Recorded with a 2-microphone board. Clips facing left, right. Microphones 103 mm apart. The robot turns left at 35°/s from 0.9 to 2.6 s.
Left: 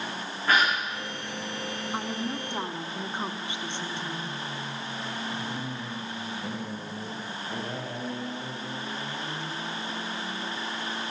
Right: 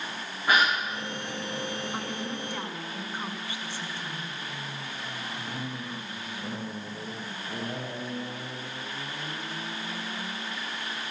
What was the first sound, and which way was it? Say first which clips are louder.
A gasp: even; 15° right (ahead or behind).